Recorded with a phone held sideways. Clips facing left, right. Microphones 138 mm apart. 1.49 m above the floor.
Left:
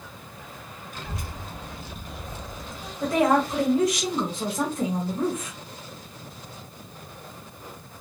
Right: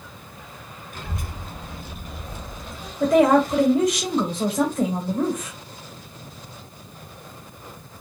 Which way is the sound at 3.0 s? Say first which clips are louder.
Right 5 dB; 60° right (ahead or behind).